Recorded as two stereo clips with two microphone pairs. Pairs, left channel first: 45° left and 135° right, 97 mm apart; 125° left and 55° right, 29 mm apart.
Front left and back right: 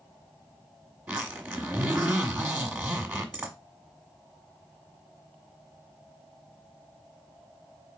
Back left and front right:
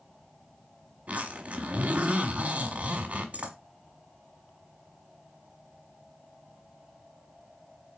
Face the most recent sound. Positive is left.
turn(degrees=-65)